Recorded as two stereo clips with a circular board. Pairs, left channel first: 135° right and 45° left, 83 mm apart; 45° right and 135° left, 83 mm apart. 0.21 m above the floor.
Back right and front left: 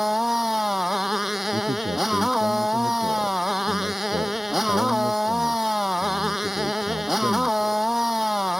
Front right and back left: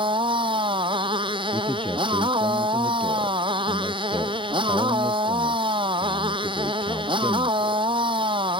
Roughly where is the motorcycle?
Behind left.